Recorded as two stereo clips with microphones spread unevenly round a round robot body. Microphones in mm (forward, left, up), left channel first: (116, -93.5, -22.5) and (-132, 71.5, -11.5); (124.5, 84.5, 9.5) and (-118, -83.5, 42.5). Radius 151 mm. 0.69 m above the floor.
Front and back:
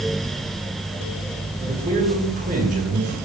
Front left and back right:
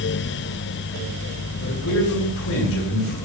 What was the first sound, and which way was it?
A man speaking, 80° left.